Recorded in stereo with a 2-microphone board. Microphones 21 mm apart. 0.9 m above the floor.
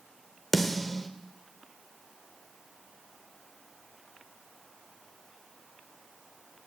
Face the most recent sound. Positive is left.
turn(degrees=10)  # may be behind; listen again after turning